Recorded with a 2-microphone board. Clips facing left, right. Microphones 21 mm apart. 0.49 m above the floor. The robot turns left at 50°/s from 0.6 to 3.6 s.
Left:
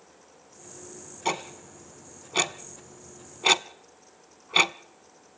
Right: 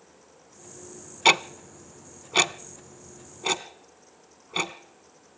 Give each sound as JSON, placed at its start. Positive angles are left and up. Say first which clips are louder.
{"t": 1.2, "sound": "ticking", "louder": "right 10 dB", "side_deg": -75, "distance_m": 0.8}